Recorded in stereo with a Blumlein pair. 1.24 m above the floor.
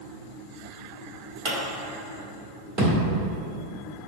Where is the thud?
30° right, 2.0 m.